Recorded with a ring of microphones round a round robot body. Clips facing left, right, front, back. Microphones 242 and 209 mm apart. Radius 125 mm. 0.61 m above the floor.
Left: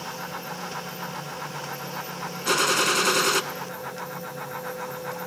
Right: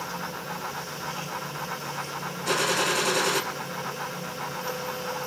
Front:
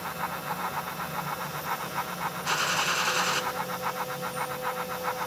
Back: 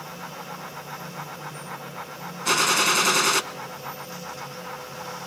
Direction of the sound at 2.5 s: 160° left.